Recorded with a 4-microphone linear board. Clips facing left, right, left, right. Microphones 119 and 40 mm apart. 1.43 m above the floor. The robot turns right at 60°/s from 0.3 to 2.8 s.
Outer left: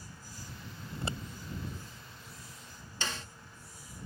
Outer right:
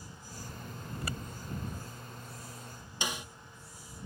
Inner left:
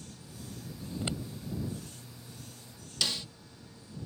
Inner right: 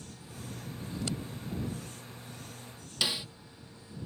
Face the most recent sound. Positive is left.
turn(degrees=-15)  # may be behind; listen again after turning